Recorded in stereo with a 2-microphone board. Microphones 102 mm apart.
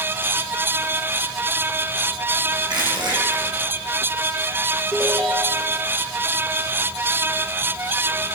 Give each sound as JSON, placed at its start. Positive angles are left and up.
{"t": 2.7, "sound": "crushing", "side_deg": -50, "distance_m": 4.5}
{"t": 4.9, "sound": "a ringtone", "side_deg": -25, "distance_m": 2.5}